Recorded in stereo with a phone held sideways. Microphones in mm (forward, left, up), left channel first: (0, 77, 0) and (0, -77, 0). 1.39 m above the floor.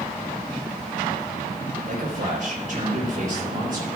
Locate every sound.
1.9 s a man speaking: 60° right (ahead or behind), 4 m